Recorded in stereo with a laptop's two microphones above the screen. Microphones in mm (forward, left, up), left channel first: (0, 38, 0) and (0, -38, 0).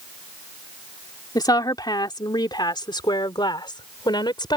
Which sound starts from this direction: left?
A woman speaking, at 1.4 s.